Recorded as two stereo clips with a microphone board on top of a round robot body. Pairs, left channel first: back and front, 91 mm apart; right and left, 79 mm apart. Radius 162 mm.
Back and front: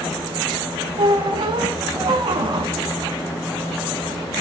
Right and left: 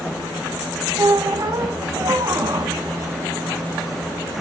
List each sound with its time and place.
1.0 s a squeak: 40° left, 1.4 m